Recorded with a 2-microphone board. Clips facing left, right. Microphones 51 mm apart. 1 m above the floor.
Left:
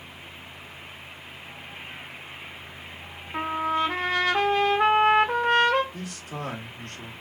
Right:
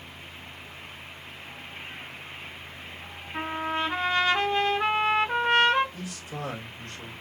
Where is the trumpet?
80° left, 1.4 m.